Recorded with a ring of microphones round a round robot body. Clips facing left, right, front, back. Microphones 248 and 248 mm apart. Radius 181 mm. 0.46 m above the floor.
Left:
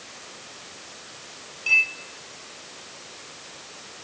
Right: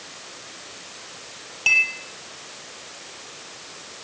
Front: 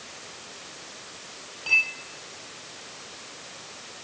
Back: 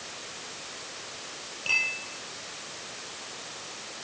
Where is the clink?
95° right, 7 m.